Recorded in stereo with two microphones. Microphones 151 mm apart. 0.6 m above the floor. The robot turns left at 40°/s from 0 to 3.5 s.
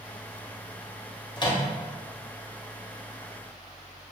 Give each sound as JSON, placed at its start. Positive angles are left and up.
{"t": 1.4, "sound": "a microwave", "side_deg": 30, "distance_m": 0.5}